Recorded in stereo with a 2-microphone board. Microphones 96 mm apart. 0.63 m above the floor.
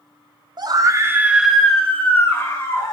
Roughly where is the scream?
Right.